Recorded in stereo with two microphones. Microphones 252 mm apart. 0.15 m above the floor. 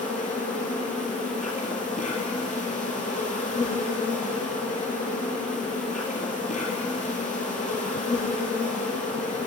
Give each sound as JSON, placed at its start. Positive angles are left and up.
{"t": 0.0, "sound": "an insect", "side_deg": 30, "distance_m": 1.4}